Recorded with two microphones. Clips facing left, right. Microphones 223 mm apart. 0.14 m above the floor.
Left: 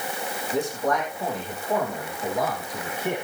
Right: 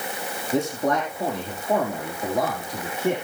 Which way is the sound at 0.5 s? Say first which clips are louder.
Right 3 dB; 75° right (ahead or behind).